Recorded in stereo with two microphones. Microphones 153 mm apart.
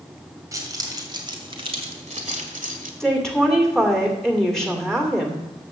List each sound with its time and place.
0.5 s keys jangling: 25° right (ahead or behind), 2 m; by 2.9 s 65° right (ahead or behind), 1.6 m
3.0 s a woman speaking: 5° left (ahead or behind), 2 m